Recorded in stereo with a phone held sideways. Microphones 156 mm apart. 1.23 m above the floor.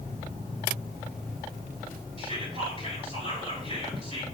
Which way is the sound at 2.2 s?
40° right (ahead or behind).